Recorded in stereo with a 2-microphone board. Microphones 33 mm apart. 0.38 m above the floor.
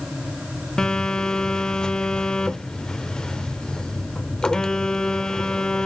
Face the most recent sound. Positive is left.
turn(degrees=20)  # may be behind; listen again after turning